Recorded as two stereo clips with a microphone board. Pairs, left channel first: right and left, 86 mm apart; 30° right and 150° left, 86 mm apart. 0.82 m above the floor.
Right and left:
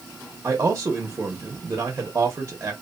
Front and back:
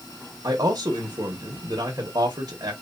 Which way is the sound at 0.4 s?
140° left.